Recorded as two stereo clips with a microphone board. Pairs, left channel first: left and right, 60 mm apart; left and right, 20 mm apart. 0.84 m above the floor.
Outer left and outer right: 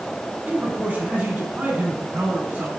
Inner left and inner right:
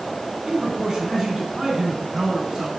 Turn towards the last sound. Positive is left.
turn(degrees=-30)  # may be behind; listen again after turning